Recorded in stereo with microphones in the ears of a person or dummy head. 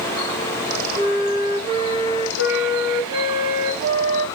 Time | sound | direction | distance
0.9 | a flute | 70° right (ahead or behind) | 2 m